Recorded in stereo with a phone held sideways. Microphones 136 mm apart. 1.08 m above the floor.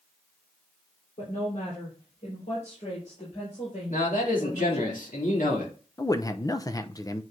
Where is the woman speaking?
75° left (ahead or behind), 3.5 m; by 4.9 s 60° left (ahead or behind), 5.5 m.